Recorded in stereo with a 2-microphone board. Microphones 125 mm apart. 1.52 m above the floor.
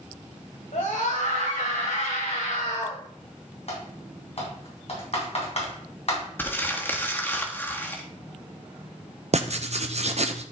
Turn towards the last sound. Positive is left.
turn(degrees=-60)  # may be behind; listen again after turning